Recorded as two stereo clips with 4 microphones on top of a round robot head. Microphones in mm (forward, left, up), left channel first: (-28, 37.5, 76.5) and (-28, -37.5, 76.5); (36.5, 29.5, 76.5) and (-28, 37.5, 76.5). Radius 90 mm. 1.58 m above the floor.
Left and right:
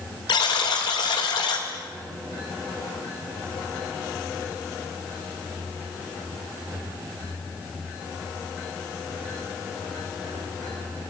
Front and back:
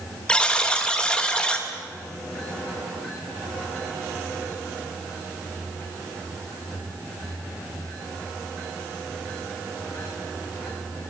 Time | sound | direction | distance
0.3 | a buzzer | 65° left | 3.5 m